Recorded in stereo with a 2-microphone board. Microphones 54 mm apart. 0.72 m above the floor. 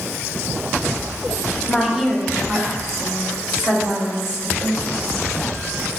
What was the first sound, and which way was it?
A woman speaking, centre (ahead or behind).